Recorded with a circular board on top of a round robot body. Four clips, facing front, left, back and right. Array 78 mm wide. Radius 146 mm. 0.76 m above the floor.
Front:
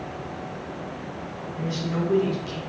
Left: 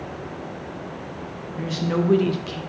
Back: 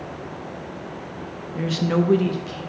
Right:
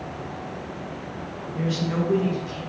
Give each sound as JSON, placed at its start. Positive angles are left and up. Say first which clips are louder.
{"t": 1.6, "sound": "a woman speaking", "louder": "left 2 dB, back 7 dB", "azimuth_deg": -170, "distance_m": 0.7}